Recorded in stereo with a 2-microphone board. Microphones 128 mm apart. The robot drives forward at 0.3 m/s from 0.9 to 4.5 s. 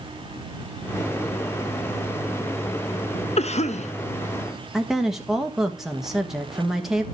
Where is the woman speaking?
5° right (ahead or behind), 1.2 m.